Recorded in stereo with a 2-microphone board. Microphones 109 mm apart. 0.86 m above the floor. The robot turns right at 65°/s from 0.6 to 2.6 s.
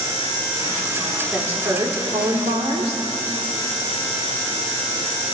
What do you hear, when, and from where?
1.3 s a woman speaking: 170° right, 2 m; by 3.0 s 85° right, 2 m